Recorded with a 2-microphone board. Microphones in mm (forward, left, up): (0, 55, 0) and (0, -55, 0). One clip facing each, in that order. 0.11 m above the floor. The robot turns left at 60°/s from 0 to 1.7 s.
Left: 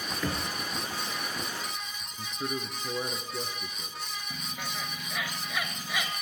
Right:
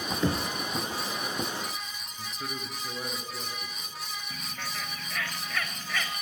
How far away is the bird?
About 0.8 m.